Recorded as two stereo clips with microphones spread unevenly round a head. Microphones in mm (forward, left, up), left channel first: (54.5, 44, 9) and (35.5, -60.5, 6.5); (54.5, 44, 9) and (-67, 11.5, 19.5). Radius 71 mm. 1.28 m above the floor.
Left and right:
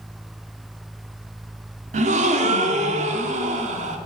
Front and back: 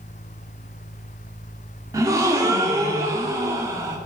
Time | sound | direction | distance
1.9 | a gasp | 95° right | 1.6 m